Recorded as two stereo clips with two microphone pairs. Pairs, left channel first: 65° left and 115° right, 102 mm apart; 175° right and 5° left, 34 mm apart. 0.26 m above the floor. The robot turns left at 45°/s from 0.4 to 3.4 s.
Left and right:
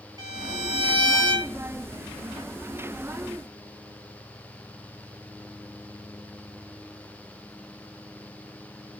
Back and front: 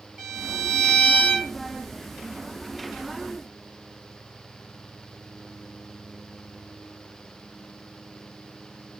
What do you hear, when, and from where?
0.2 s a violin: 70° right, 1.4 m; by 1.5 s 125° right, 1.4 m